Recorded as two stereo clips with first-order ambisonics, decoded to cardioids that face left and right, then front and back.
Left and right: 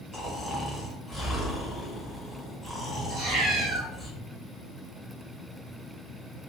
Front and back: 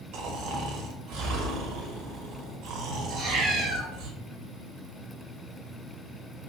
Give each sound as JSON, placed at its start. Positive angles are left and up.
{"t": 0.1, "sound": "snoring", "azimuth_deg": -170, "distance_m": 0.8}
{"t": 3.1, "sound": "a cat meowing", "azimuth_deg": -115, "distance_m": 1.1}